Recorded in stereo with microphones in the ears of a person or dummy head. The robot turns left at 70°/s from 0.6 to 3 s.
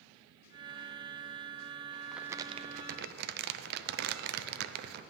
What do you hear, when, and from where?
2.1 s crumpling: 5° left, 0.6 m; by 5.0 s 60° right, 0.6 m